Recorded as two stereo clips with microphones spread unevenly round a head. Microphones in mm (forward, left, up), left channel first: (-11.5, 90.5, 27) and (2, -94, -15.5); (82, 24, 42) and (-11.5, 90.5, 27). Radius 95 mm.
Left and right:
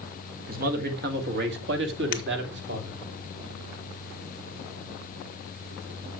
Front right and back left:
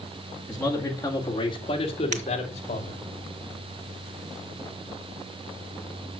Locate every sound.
0.5 s a man speaking: 120° right, 2 m; by 3.0 s 60° right, 2.5 m
2.1 s breaking glass: 135° left, 1.9 m